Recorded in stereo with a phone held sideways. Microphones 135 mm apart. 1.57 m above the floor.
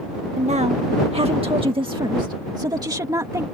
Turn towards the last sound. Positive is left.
turn(degrees=-25)  # may be behind; listen again after turning